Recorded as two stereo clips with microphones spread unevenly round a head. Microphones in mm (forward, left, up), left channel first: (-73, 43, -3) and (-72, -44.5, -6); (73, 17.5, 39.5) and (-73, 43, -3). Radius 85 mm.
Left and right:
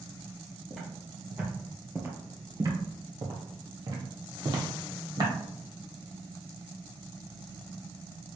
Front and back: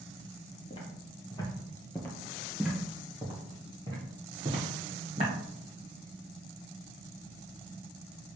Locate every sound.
0.7 s footsteps: 5° left, 1.6 m; by 5.3 s 125° right, 2.5 m